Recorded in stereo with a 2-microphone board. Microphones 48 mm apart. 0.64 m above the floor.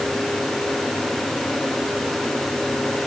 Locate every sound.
Only background noise.